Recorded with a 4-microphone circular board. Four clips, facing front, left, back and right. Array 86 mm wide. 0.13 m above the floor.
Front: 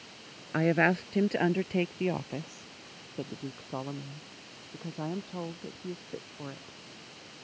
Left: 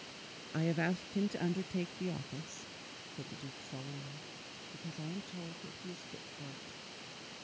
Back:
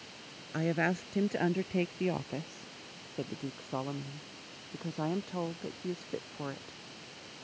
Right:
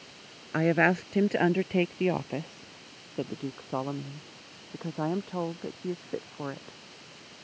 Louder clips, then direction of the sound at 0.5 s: Right 11 dB, front 6 dB; 60° right.